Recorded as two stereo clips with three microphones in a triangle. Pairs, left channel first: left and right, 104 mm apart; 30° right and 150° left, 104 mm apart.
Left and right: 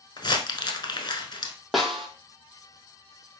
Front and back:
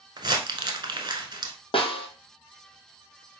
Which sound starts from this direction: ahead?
A snare drum, at 1.7 s.